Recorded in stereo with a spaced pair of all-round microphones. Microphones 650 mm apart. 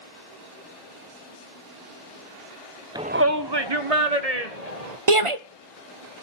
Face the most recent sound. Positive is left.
turn(degrees=-50)  # may be behind; listen again after turning